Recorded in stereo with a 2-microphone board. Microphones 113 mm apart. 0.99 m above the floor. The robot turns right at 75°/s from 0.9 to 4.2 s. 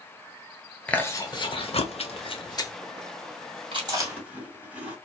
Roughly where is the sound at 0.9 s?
Centre.